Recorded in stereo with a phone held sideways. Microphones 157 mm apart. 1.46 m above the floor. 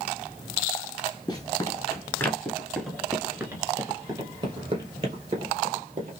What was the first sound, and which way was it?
Running footsteps, 30° left (ahead or behind).